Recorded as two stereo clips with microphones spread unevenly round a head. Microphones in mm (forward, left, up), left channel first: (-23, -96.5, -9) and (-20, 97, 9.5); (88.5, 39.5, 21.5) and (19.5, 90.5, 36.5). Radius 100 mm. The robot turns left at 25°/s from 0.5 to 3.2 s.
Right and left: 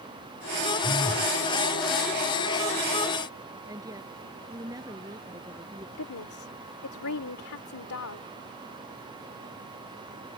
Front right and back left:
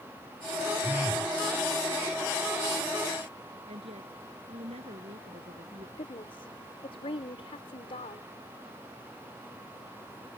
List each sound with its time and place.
0.8 s a phone buzzing: 160° right; by 1.4 s 175° right
3.7 s a woman speaking: 160° left
6.0 s a woman speaking: 80° right